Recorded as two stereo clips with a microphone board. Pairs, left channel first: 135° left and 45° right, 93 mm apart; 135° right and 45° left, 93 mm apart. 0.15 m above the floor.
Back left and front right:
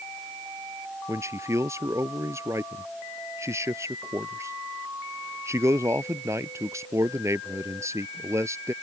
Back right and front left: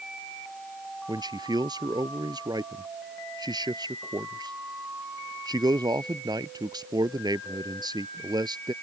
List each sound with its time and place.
1.1 s a man speaking: 10° left